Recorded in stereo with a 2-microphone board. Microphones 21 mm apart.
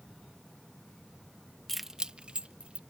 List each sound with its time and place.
1.7 s keys jangling: 15° left (ahead or behind); by 2.8 s 70° right (ahead or behind)